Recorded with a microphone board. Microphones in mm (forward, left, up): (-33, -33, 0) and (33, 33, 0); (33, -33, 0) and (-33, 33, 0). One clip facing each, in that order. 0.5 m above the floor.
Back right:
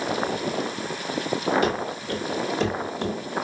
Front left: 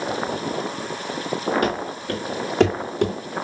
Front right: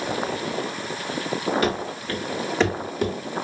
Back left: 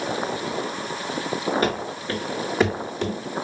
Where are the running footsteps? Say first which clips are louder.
Front left 1 dB, even; 80° left, 2.5 m; by 3.1 s 30° left, 1.2 m.